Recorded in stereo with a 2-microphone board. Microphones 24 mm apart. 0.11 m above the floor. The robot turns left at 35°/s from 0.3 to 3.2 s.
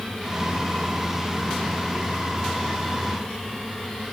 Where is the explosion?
No explosion in this recording.